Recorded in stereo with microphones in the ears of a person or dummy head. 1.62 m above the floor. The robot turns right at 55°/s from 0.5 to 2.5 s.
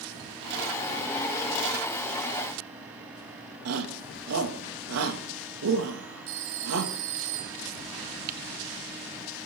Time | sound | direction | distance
3.6 | a shout | 80° right | 2.5 m
6.3 | a phone ringing | 70° right (ahead or behind) | 3 m
8.3 | typing on a keyboard | 50° right (ahead or behind) | 0.8 m